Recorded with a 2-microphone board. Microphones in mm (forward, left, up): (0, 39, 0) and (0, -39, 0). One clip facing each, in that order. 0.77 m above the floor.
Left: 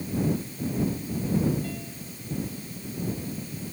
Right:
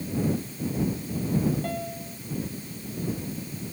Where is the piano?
50° right (ahead or behind).